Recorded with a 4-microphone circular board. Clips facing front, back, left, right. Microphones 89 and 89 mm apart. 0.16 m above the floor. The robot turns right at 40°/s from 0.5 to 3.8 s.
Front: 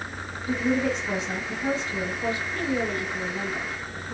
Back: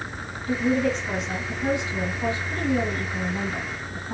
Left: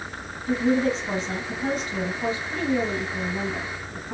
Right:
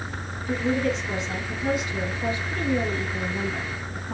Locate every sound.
0.5 s a woman speaking: 60° left, 1.7 m; by 4.1 s 165° right, 1.7 m